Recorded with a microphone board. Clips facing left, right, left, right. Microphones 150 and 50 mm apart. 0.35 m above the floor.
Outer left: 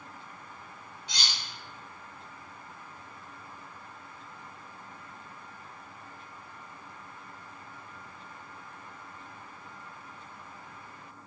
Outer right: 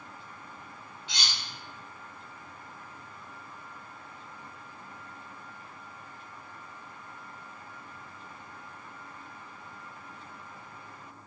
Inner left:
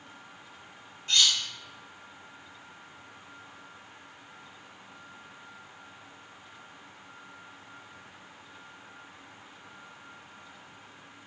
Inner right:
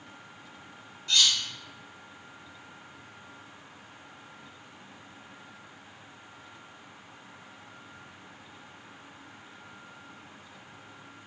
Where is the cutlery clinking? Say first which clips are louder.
Even, even; 40° left (ahead or behind), 0.8 m.